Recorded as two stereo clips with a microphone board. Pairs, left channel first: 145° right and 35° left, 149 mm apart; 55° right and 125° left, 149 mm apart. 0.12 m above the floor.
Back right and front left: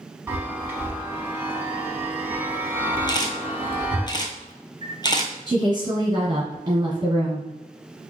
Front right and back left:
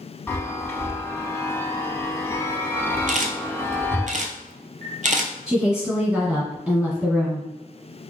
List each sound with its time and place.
0.3 s a chime: 15° right, 0.6 m
3.1 s a camera shutter: 155° left, 0.6 m
5.5 s a woman speaking: 40° left, 1.7 m